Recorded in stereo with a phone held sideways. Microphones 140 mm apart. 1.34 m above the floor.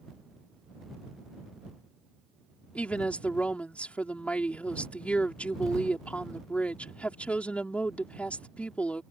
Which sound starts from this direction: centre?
A woman speaking, at 2.8 s.